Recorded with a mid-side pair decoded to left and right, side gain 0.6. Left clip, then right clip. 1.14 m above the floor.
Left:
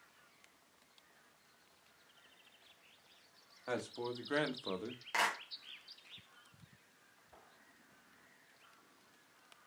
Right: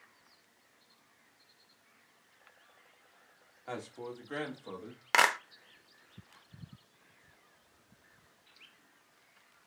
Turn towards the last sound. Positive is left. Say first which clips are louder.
# right 9 dB
turn(degrees=-60)